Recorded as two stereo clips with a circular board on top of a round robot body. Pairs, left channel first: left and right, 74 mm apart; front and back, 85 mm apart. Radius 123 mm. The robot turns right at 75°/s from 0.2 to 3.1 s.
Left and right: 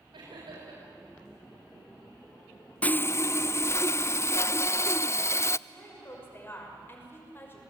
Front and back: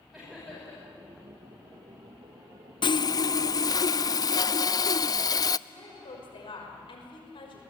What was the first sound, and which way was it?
Laughter, 90° right.